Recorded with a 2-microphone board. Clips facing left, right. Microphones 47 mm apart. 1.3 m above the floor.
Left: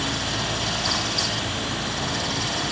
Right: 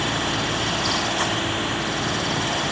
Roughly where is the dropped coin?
I don't hear a dropped coin.